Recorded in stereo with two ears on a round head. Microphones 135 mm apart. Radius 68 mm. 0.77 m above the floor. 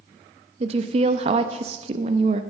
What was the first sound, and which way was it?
A woman speaking, 40° right (ahead or behind).